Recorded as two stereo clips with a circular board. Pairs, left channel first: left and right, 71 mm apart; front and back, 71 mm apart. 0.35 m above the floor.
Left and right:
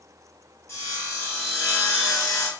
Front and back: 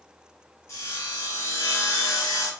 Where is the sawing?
45° left, 1.0 m.